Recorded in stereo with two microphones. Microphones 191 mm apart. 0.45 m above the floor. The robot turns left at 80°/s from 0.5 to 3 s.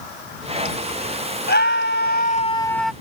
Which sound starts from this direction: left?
A scream, at 1.5 s.